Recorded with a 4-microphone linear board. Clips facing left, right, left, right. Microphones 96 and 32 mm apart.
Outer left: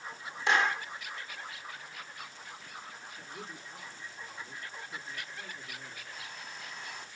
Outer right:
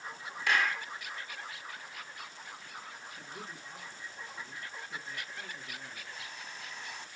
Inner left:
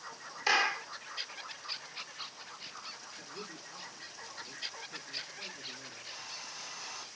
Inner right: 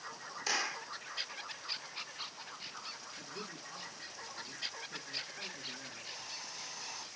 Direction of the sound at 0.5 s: 25° left (ahead or behind).